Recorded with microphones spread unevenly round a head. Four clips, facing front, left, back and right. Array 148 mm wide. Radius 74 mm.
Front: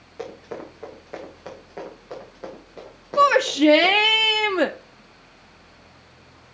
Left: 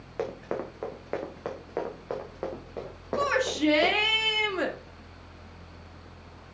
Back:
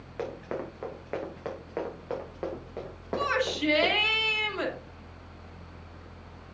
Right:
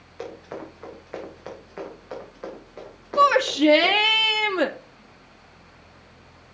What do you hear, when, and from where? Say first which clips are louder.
0.2 s running footsteps: left 3 dB, even; 95° left, 4 m; by 4.2 s 130° left, 6 m
3.2 s a shout: right 9 dB, front 12 dB; 20° right, 0.8 m